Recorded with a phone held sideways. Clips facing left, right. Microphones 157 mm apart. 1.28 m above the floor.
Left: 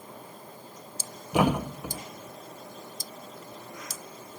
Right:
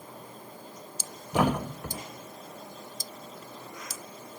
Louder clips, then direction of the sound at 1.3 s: Left 2 dB; 10° left (ahead or behind).